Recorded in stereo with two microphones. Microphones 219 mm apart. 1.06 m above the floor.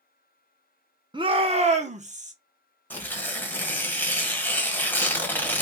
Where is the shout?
20° right (ahead or behind), 0.7 m; by 2.3 s 35° right (ahead or behind), 0.9 m.